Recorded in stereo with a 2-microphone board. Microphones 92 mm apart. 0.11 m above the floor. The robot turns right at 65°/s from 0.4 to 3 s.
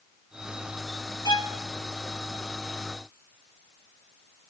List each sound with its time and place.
1.2 s a violin: 60° left (ahead or behind), 0.5 m